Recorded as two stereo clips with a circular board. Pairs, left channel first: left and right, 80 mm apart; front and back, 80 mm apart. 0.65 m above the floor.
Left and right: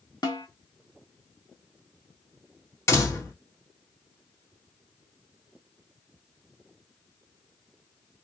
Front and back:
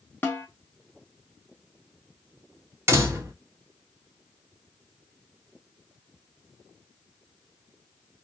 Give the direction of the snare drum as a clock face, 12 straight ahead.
10 o'clock.